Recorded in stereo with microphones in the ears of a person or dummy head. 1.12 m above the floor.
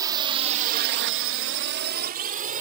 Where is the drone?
20° right (ahead or behind); by 2.6 s 40° right (ahead or behind).